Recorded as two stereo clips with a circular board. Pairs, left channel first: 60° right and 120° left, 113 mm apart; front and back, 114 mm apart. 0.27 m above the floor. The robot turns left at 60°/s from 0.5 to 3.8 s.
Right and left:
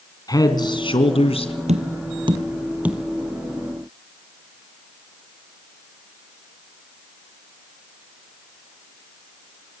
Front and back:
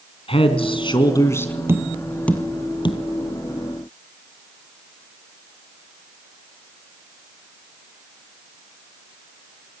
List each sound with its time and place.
0.3 s a man speaking: 10° right, 2.5 m; by 1.5 s 75° right, 2.5 m
1.7 s tapping: 115° left, 2 m; by 3.0 s 35° left, 2 m